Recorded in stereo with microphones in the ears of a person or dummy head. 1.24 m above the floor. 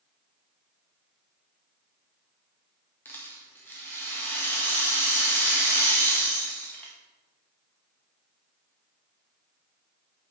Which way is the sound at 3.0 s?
10° left (ahead or behind).